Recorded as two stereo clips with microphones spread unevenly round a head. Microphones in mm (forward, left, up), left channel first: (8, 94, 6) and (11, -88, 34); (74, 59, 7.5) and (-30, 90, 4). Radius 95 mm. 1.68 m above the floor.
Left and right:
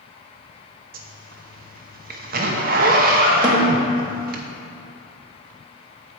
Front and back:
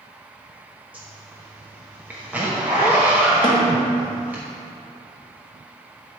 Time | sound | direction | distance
0.9 | a zipper | 115° right | 0.8 m
3.4 | a snare drum | 45° right | 1.4 m